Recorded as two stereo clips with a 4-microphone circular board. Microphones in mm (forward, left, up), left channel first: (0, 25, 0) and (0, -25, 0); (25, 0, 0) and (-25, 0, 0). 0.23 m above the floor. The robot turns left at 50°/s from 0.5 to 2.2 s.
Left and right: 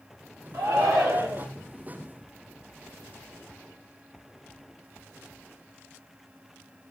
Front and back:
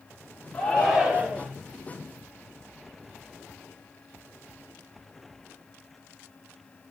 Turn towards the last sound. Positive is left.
turn(degrees=-150)